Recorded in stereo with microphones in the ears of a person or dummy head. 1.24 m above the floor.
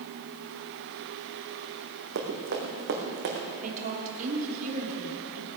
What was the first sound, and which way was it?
Running footsteps, 60° right (ahead or behind).